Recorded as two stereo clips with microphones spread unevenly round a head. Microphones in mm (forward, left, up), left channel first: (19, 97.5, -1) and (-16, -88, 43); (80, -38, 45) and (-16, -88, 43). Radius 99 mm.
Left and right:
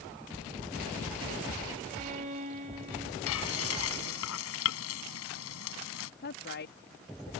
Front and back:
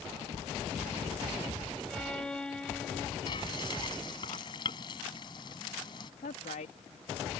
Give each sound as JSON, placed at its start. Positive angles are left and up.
{"t": 1.9, "sound": "a violin", "azimuth_deg": -55}
{"t": 3.3, "sound": "frying", "azimuth_deg": 95}
{"t": 6.2, "sound": "a woman speaking", "azimuth_deg": 45}